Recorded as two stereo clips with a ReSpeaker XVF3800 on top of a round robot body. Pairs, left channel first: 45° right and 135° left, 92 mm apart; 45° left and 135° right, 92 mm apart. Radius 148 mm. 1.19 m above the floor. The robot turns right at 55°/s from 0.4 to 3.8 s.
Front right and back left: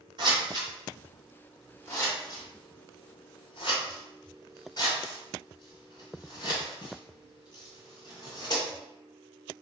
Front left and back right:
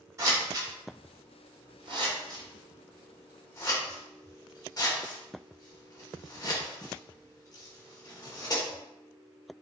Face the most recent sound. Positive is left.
turn(degrees=-5)